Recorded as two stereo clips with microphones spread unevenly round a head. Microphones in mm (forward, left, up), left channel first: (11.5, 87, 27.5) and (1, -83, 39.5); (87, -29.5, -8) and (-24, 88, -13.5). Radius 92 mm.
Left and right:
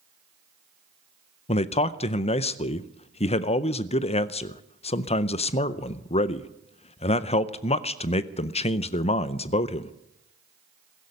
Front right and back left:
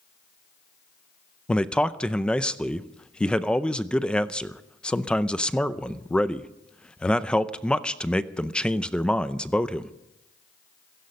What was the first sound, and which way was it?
A man speaking, 40° left.